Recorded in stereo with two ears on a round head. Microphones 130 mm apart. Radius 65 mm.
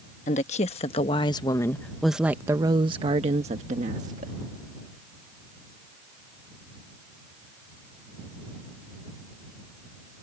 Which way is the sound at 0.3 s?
50° left (ahead or behind).